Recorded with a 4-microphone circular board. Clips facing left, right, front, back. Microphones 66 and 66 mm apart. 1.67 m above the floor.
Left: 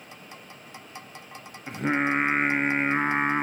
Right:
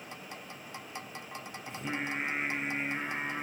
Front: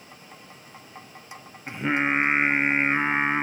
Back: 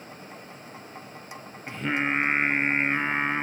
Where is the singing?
70° left, 0.5 m.